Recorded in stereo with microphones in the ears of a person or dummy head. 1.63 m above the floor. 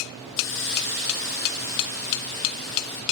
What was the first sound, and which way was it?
A hiss, 65° left (ahead or behind).